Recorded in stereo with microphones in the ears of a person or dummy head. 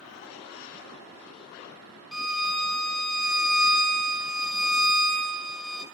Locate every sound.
2.1 s a violin: centre (ahead or behind), 1.8 m